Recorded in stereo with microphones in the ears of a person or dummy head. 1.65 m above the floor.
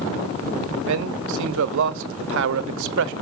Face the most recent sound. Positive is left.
turn(degrees=-75)  # may be behind; listen again after turning